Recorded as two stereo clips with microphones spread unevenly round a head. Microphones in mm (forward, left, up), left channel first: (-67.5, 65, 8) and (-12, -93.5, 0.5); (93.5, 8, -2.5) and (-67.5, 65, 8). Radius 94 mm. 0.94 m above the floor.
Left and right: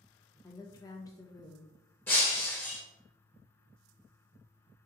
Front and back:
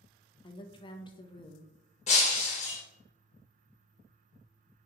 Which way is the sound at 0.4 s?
35° left.